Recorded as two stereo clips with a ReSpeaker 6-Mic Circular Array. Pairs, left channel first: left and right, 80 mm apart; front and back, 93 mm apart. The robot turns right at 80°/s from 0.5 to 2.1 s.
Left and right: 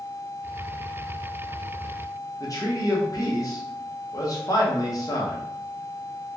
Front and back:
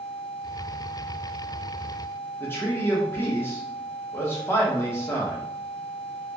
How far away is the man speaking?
About 0.9 m.